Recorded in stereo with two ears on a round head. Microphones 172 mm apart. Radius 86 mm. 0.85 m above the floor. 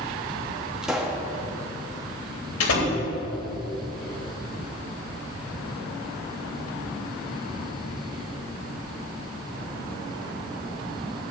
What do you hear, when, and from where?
0.8 s a pop: 5° right (ahead or behind), 1.3 m
2.6 s a door slam: 85° left, 3 m